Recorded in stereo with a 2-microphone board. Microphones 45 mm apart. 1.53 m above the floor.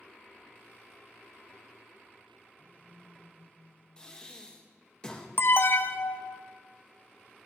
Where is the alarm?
50° left (ahead or behind), 0.5 m.